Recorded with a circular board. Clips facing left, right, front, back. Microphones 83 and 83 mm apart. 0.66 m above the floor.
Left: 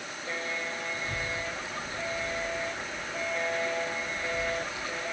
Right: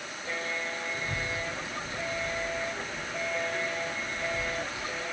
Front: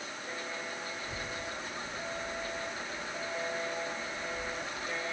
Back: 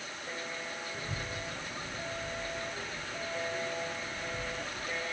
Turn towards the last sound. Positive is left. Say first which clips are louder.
# even, even
turn(degrees=-155)